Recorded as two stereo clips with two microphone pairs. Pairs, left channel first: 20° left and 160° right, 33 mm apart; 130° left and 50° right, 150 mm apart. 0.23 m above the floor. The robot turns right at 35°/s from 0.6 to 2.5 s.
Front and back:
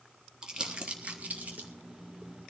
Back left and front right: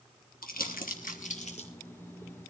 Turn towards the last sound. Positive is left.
turn(degrees=-155)